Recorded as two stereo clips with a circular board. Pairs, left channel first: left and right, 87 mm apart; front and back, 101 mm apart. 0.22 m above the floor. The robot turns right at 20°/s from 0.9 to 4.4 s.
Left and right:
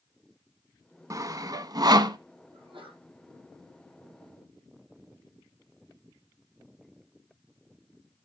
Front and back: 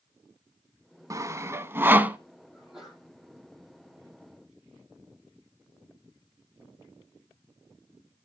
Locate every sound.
1.1 s sawing: 130° right, 0.5 m; by 2.2 s 110° right, 0.5 m
2.5 s a sneeze: 100° right, 7 m; by 3.1 s 90° right, 7 m